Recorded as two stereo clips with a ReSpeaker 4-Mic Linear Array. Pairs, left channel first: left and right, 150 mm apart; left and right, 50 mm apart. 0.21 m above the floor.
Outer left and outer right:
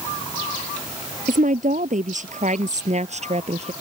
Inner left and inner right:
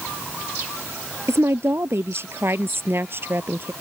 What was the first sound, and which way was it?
A woman speaking, 60° right (ahead or behind).